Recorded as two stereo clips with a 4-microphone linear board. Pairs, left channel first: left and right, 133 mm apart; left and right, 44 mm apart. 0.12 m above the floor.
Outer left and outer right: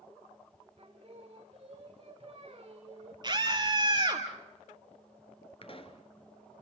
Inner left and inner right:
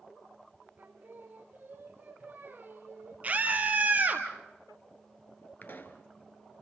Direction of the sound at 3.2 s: 35° right (ahead or behind).